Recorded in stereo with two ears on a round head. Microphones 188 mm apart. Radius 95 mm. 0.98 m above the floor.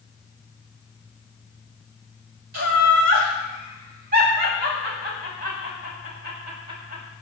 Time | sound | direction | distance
2.5 | laughter | 45° right (ahead or behind) | 4.5 m